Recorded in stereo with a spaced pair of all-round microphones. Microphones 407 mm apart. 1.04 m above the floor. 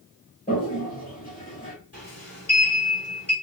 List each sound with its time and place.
0.5 s a toilet flushing: 20° left (ahead or behind), 2.5 m
1.9 s a sliding door: 35° left (ahead or behind), 3.5 m